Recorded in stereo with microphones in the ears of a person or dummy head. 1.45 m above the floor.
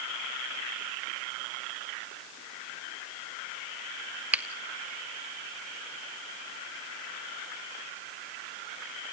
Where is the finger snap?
10° right (ahead or behind), 1.4 m.